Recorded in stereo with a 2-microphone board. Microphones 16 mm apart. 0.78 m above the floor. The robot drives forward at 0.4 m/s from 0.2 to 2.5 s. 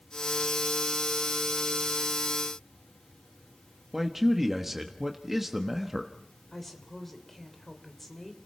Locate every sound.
3.9 s a man speaking: 15° right (ahead or behind), 1.2 m
6.5 s a woman speaking: 10° left (ahead or behind), 3 m